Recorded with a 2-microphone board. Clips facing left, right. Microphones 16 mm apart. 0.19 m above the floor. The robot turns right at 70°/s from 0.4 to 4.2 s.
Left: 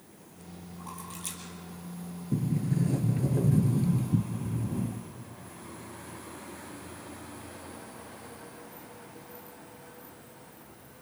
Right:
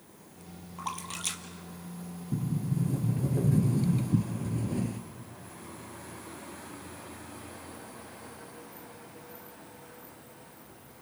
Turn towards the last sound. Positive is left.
turn(degrees=-135)